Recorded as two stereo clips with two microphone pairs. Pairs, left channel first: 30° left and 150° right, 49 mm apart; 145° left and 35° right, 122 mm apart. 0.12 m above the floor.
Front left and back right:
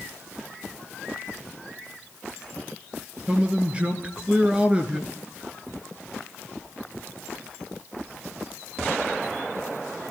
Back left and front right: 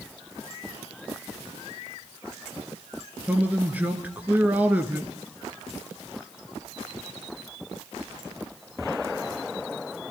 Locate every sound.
3.3 s a man speaking: 95° right, 1.8 m